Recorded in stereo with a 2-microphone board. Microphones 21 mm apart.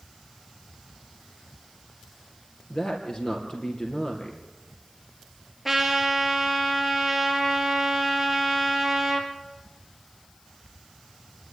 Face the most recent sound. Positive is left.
turn(degrees=-5)  # may be behind; listen again after turning